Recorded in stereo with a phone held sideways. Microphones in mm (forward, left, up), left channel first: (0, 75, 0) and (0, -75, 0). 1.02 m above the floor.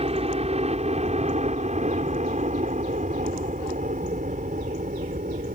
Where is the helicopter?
45° right (ahead or behind); by 5.6 s 65° right (ahead or behind).